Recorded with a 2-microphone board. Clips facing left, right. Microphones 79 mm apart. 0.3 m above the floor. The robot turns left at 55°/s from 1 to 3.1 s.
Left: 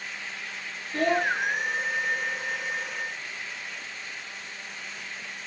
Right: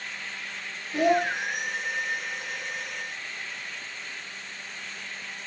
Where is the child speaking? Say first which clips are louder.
Right 2 dB; 15° right (ahead or behind), 0.6 m; by 1.3 s 25° right (ahead or behind), 0.6 m.